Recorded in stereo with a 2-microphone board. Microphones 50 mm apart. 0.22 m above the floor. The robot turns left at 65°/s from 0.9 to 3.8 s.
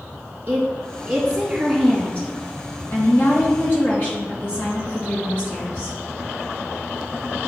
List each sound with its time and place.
0.5 s a woman speaking: 135° right, 2.5 m; by 6.0 s 35° left, 2.5 m